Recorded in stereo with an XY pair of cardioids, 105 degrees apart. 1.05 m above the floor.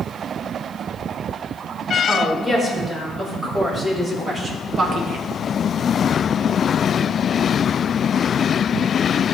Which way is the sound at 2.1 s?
15° right.